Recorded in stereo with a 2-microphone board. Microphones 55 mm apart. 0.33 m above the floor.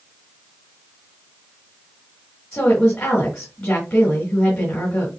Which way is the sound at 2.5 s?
20° left (ahead or behind).